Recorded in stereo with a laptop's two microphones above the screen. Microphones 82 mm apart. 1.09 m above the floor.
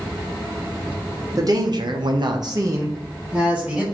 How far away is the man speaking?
About 0.7 m.